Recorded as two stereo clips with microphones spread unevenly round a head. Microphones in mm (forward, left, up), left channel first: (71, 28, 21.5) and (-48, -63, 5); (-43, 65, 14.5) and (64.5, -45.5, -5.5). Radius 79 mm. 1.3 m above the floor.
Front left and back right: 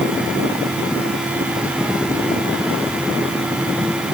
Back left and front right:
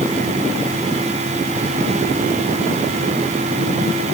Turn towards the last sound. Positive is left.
No sound to turn to.